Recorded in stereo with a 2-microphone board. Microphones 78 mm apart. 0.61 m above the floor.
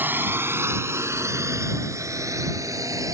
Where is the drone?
25° right (ahead or behind); by 3.1 s 45° right (ahead or behind).